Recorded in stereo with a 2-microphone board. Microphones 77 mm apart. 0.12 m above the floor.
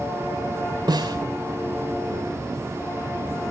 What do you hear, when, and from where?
0.9 s a snare drum: 60° right (ahead or behind), 2.5 m